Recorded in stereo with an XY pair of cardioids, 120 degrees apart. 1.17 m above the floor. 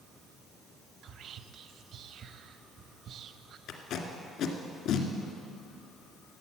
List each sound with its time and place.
1.0 s whispering: 55° right, 0.8 m
3.7 s tape being pulled: 70° left, 1.8 m